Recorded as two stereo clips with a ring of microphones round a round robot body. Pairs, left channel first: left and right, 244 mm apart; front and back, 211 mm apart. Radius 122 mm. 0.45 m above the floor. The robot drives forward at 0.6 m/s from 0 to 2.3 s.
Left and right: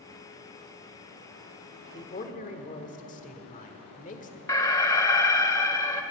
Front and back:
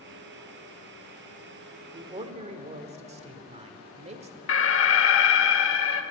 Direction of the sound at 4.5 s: 15° left.